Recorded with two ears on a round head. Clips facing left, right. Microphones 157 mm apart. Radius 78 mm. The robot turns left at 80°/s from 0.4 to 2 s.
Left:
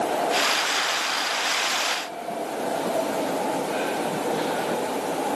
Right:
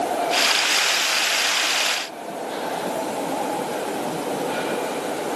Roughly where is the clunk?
I don't hear a clunk.